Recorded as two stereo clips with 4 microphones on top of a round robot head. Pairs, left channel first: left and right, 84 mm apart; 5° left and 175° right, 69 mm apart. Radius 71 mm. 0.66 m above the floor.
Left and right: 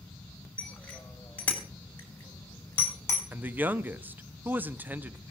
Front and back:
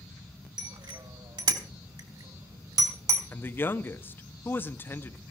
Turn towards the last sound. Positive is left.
turn(degrees=-35)